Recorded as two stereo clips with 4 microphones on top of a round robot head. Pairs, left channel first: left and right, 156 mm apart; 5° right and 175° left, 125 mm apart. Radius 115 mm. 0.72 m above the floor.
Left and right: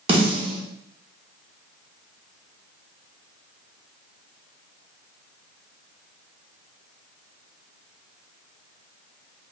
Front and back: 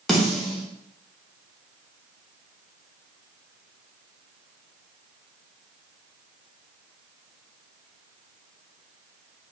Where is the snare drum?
95° right, 1.0 m.